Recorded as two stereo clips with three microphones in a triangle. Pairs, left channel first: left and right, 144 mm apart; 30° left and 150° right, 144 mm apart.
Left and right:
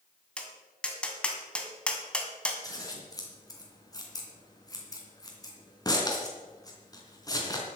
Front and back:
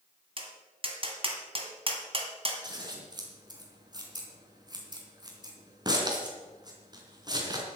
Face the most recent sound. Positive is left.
turn(degrees=150)